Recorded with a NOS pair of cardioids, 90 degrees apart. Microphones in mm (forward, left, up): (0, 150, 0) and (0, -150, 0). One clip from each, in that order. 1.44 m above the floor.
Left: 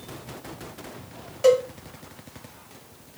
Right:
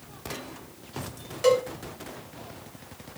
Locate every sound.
1.4 s a cowbell: 10° right, 2.5 m